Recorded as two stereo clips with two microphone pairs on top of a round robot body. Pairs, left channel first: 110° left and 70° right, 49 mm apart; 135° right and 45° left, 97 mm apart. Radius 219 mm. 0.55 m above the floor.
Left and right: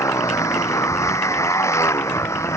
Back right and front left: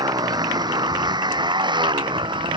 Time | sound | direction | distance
0.0 | a motorcycle | 95° left | ?